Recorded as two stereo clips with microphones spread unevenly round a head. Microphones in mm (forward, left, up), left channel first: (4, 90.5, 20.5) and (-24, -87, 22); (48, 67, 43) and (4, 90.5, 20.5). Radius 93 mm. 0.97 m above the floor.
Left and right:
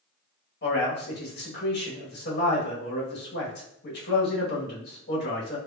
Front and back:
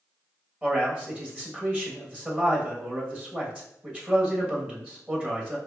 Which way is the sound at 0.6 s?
105° left.